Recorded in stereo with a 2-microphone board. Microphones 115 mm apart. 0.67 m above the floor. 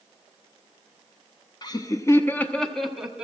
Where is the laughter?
35° left (ahead or behind), 0.9 m; by 3.2 s 5° right (ahead or behind), 1.2 m.